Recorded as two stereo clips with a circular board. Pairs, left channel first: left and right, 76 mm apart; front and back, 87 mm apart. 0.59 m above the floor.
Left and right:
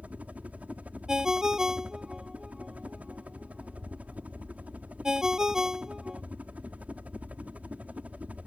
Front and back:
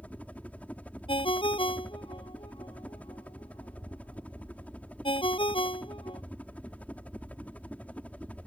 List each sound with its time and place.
0.0 s a helicopter: 50° right
1.1 s a ringtone: 10° right